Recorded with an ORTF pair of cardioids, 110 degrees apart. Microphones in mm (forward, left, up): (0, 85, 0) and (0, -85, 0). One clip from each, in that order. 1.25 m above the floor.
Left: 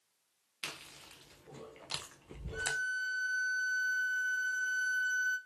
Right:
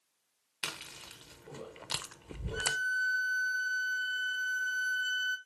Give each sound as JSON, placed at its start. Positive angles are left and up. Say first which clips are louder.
{"t": 0.6, "sound": "chewing", "louder": "right 4 dB", "azimuth_deg": -30, "distance_m": 0.7}
{"t": 2.5, "sound": "a violin", "louder": "right 3 dB", "azimuth_deg": -15, "distance_m": 1.0}